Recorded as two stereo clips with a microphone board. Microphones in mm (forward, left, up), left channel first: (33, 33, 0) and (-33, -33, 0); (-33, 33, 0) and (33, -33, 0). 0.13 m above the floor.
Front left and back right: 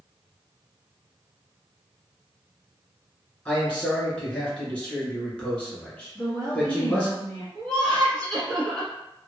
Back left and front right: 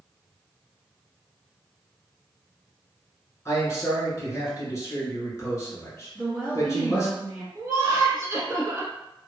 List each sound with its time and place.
3.5 s a man speaking: 110° left, 1.3 m
6.2 s a woman speaking: 20° left, 1.8 m
7.5 s laughter: 25° right, 1.2 m